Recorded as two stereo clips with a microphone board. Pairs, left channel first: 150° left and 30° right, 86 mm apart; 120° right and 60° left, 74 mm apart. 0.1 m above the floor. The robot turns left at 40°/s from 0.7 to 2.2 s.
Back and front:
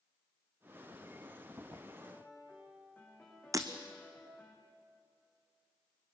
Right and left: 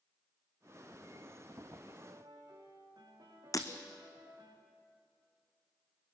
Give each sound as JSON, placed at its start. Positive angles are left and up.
{"t": 2.0, "sound": "a piano", "azimuth_deg": 85, "distance_m": 5.0}
{"t": 3.5, "sound": "breaking glass", "azimuth_deg": -80, "distance_m": 1.2}